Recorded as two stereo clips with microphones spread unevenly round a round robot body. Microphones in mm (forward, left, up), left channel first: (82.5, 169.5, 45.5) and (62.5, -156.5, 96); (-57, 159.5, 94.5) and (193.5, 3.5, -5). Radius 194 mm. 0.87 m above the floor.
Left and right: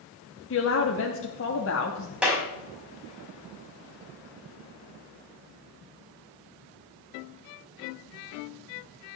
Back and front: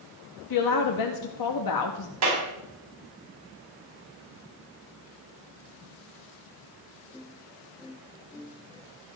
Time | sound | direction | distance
0.5 | a woman speaking | 135° left | 1.2 m
2.2 | a clap | 5° right | 5 m